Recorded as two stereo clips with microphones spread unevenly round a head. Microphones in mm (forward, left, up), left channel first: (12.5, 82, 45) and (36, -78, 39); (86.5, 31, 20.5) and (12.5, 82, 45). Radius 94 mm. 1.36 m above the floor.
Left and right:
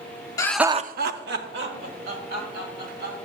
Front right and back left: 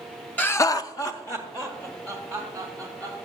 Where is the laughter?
30° left, 0.7 m; by 3.3 s 110° right, 3.5 m.